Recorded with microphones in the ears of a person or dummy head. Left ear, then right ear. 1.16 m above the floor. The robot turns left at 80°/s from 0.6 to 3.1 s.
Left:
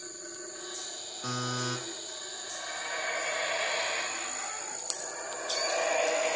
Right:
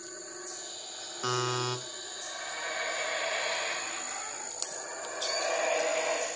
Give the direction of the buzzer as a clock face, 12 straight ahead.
4 o'clock.